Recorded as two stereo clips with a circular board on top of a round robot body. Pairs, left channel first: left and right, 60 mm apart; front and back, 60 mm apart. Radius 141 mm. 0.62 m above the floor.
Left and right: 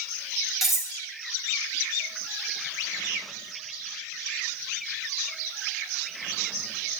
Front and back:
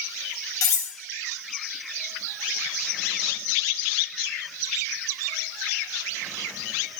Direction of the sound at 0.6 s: 5° right.